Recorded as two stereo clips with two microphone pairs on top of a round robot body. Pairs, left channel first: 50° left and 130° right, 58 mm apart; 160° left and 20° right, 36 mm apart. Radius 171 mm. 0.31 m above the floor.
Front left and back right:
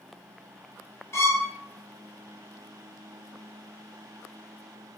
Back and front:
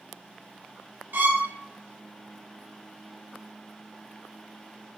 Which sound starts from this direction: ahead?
A violin, at 1.1 s.